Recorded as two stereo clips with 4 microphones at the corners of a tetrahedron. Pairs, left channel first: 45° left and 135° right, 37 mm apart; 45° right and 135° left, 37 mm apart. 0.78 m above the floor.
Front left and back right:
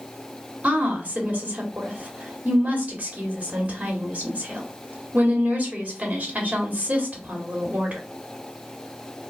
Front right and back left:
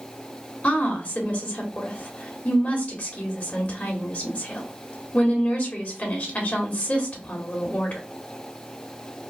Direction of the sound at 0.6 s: 85° right.